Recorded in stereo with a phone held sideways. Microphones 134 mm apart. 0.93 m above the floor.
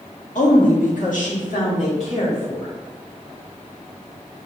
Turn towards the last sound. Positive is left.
turn(degrees=55)  # may be behind; listen again after turning